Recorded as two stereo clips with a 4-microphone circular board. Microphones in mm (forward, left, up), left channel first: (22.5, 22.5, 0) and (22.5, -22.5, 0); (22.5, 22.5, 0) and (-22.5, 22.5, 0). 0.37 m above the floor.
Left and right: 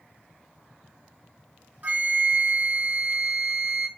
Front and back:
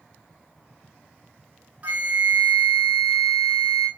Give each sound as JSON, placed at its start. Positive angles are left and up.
{"t": 1.8, "sound": "a flute", "azimuth_deg": -130, "distance_m": 1.3}